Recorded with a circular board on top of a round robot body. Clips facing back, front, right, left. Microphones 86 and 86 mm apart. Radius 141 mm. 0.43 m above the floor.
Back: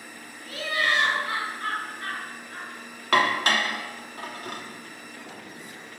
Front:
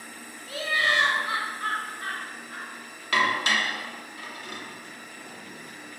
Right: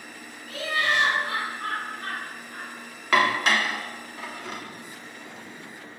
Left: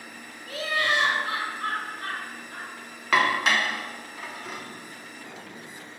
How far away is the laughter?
About 2.5 m.